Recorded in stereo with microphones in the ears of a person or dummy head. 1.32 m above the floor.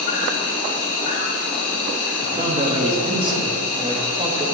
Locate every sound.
0.0 s an insect: 35° left (ahead or behind), 0.9 m
2.2 s a man speaking: 30° right (ahead or behind), 0.8 m